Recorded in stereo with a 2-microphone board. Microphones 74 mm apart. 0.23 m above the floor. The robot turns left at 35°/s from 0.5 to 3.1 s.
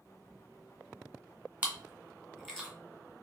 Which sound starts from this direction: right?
Chewing, at 1.6 s.